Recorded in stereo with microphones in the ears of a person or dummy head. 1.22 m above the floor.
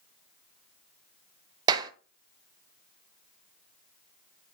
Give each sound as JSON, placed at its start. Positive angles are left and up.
{"t": 1.7, "sound": "a clap", "side_deg": -25, "distance_m": 0.5}